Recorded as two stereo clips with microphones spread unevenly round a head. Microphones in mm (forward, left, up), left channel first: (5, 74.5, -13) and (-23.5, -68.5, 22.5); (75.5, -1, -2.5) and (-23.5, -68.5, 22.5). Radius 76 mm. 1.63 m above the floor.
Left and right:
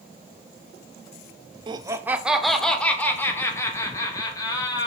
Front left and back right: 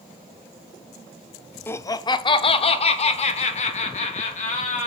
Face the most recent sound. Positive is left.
turn(degrees=10)